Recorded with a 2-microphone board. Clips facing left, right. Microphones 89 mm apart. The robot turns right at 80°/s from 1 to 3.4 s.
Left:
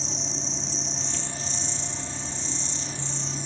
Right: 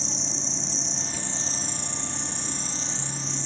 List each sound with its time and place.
0.0 s an insect: straight behind; by 3.5 s 10° left